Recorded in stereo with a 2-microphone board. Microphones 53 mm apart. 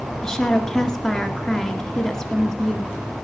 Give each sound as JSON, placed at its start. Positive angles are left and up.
{"t": 0.2, "sound": "a woman speaking", "side_deg": 10, "distance_m": 1.6}